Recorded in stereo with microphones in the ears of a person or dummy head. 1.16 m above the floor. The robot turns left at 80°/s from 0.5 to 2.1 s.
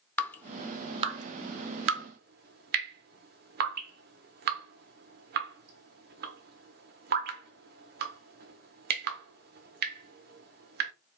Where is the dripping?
10° left (ahead or behind), 0.9 m; by 10.9 s 50° right (ahead or behind), 0.9 m.